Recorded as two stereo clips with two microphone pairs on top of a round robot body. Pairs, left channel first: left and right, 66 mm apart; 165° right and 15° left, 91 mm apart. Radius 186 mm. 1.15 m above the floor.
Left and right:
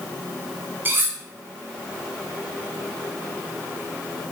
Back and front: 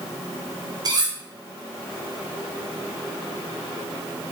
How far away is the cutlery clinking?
About 2 m.